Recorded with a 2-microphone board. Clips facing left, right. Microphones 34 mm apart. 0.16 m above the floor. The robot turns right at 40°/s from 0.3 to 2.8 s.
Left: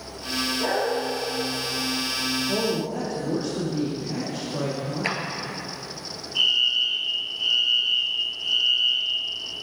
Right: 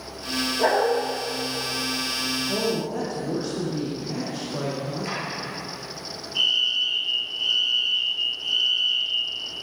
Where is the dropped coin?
I don't hear a dropped coin.